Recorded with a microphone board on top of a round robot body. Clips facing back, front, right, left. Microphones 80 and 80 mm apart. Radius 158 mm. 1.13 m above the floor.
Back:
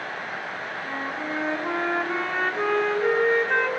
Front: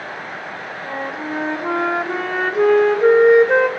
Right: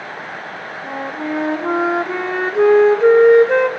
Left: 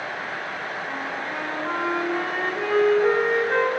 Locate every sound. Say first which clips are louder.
0.8 s a flute: front 5 dB, right 5 dB; 75° right, 1.5 m